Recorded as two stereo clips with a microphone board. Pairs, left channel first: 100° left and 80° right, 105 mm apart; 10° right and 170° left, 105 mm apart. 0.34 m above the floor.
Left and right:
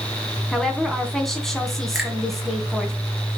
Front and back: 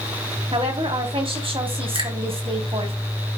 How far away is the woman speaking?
About 2.5 m.